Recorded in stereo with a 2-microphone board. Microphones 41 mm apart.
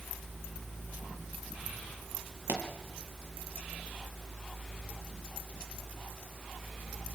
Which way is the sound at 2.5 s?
65° right (ahead or behind).